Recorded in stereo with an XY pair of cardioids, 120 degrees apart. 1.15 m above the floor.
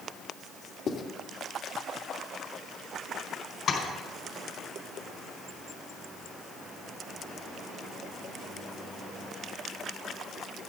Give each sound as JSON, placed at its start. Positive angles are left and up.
{"t": 0.9, "sound": "writing", "azimuth_deg": 50, "distance_m": 2.5}
{"t": 3.7, "sound": "tapping", "azimuth_deg": 55, "distance_m": 5.0}